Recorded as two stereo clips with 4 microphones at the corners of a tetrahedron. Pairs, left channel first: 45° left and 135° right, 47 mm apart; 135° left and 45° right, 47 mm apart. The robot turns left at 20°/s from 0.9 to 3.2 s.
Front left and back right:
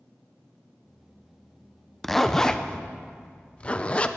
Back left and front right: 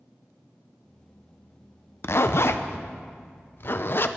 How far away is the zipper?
About 0.6 m.